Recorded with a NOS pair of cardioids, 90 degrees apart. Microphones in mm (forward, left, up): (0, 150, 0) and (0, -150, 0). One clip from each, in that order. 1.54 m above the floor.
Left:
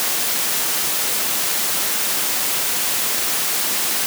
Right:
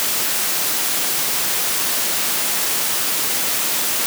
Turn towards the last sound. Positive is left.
No sound to turn to.